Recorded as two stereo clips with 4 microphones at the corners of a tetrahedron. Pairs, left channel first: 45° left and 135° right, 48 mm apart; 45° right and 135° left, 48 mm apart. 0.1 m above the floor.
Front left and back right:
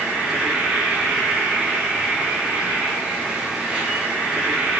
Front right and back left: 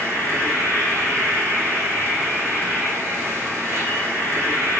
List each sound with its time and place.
0.0 s an insect: 155° left, 2.5 m